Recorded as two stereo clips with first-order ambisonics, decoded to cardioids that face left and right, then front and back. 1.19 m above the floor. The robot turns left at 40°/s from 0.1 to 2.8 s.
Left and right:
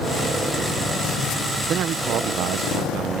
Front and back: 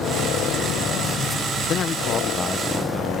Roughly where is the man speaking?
Ahead right.